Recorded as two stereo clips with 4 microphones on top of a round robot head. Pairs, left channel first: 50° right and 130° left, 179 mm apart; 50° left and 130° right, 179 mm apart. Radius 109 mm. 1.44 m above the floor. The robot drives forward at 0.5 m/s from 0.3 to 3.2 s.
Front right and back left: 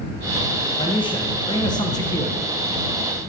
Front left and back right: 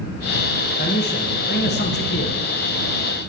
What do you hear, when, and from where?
0.8 s a man speaking: 15° left, 2 m; by 2.4 s 25° left, 1.4 m